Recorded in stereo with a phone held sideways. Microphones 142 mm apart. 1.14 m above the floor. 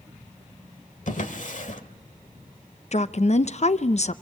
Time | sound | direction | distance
1.1 | a drawer | 60° left (ahead or behind) | 1.5 m
2.9 | a woman speaking | 50° left (ahead or behind) | 0.6 m